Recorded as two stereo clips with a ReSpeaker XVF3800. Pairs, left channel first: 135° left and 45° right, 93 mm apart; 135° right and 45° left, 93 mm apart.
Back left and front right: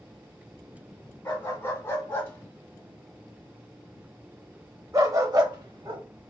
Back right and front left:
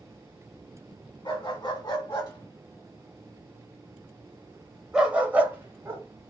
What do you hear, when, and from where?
1.2 s a dog barking: 165° right, 1.7 m; by 6.0 s 10° right, 1.1 m